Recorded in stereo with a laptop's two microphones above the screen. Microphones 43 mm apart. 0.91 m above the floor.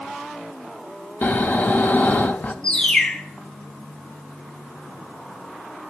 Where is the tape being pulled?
I don't hear tape being pulled.